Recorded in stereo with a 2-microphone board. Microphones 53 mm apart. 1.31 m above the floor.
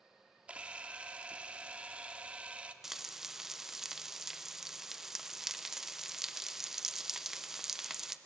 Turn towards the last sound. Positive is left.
turn(degrees=-10)  # may be behind; listen again after turning